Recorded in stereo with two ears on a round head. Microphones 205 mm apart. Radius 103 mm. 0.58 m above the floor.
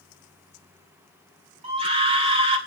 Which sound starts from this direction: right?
A scream, at 1.6 s.